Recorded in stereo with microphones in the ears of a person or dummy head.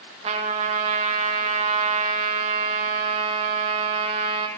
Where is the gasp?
I don't hear a gasp.